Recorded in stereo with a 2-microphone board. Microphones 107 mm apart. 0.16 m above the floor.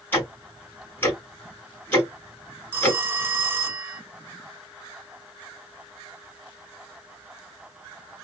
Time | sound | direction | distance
0.1 | ticking | 20° left (ahead or behind) | 1.7 m
2.7 | a phone ringing | 20° right (ahead or behind) | 0.6 m